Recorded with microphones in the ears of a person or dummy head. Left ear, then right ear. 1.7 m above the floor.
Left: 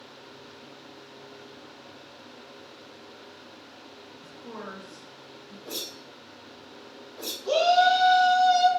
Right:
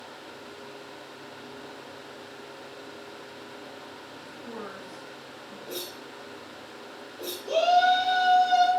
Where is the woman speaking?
20° left (ahead or behind), 1.2 m.